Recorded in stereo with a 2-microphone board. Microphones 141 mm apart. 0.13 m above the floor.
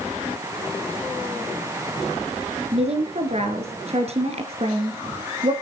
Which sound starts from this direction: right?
A woman speaking, at 2.7 s.